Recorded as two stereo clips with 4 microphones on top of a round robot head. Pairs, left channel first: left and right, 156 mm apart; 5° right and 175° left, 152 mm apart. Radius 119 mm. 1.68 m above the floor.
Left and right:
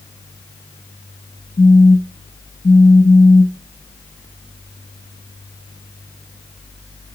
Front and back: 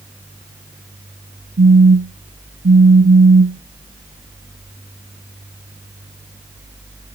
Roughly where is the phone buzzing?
Behind left.